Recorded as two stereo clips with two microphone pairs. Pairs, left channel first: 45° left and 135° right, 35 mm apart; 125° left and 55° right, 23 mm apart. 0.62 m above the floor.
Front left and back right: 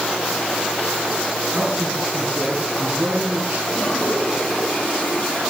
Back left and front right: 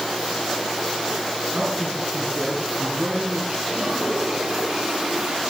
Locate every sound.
1.5 s a man speaking: 85° right, 6 m; by 3.6 s 100° right, 6 m
3.7 s a toilet flushing: 25° right, 9.5 m